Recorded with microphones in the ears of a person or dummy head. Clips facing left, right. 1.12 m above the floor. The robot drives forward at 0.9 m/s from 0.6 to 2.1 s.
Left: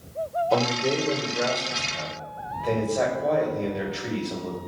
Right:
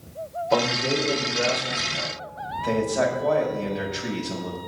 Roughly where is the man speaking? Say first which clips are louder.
Right 2 dB; centre.